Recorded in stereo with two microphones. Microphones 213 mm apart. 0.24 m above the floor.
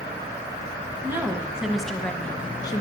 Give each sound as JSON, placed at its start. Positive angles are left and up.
{"t": 1.0, "sound": "a woman speaking", "side_deg": -10, "distance_m": 1.7}